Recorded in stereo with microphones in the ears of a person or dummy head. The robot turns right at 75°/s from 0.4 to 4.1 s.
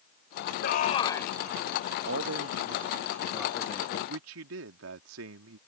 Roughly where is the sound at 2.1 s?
Right.